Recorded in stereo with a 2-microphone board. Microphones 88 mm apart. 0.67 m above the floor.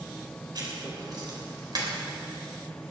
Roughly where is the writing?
Right.